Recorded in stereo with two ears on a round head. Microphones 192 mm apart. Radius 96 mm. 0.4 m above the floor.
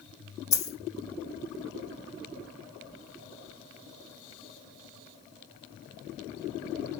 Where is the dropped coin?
15° left (ahead or behind), 3.5 m.